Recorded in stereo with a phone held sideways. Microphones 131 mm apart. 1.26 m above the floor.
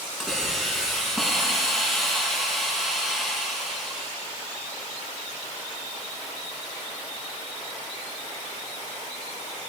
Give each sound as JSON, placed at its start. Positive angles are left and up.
{"t": 0.2, "sound": "a hiss", "side_deg": 0, "distance_m": 6.0}